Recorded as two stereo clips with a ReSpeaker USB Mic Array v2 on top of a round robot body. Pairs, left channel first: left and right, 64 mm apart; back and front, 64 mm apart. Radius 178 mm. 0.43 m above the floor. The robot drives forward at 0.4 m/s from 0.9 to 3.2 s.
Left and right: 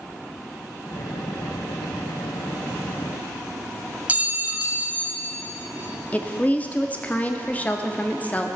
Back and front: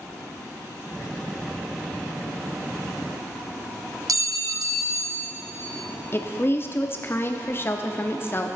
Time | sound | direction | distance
4.1 | a clink | 25° right | 0.9 m
6.1 | a woman speaking | 150° left | 1.1 m